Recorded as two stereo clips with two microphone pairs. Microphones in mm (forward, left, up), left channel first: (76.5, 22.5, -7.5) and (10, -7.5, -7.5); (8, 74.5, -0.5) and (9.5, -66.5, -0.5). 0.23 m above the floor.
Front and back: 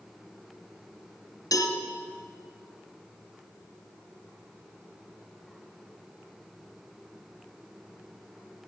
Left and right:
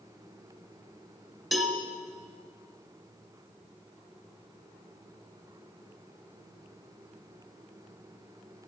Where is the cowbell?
Straight ahead, 1.3 m.